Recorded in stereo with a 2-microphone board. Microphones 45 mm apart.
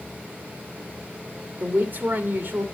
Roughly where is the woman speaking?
Right.